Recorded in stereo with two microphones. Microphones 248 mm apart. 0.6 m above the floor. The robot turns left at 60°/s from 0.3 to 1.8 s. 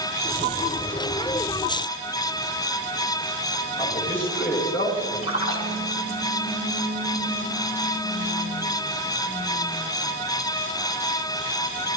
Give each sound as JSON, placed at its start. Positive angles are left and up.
{"t": 3.8, "sound": "a man speaking", "side_deg": 40, "distance_m": 6.0}
{"t": 5.2, "sound": "a splash", "side_deg": 65, "distance_m": 4.0}